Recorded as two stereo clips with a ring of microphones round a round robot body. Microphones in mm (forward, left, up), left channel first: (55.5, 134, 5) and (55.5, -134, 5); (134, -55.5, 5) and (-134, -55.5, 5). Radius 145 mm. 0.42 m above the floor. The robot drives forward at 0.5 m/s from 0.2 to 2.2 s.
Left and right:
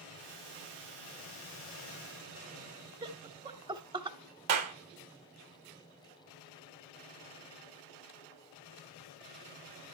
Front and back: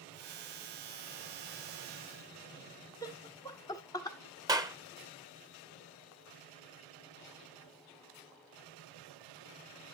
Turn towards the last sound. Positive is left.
turn(degrees=-105)